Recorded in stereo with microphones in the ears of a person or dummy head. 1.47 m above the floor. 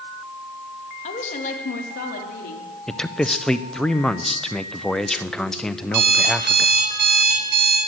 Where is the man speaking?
Centre (ahead or behind), 0.6 m.